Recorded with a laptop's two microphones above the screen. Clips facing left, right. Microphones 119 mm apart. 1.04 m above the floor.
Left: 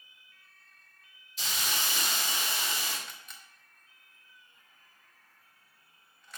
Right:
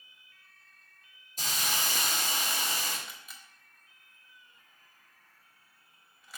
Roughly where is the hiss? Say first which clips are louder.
Right 1 dB; right.